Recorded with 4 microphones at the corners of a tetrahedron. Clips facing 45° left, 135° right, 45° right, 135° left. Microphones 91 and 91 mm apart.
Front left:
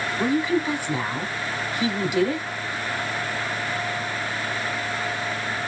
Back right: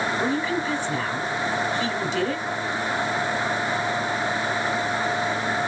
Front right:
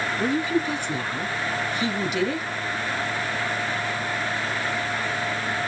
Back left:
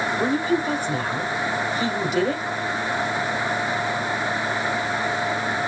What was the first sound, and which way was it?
A woman speaking, 120° left.